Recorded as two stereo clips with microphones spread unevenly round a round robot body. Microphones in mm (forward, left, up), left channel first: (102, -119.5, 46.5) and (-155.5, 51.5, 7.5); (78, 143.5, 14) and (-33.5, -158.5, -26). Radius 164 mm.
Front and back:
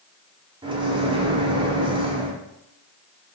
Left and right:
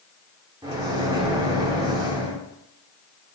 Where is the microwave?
165° right, 0.7 m.